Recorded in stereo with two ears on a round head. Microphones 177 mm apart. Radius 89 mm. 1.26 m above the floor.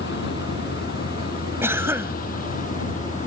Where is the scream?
I don't hear a scream.